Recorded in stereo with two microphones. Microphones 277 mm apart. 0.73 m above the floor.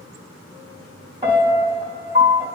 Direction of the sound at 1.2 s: 20° right (ahead or behind).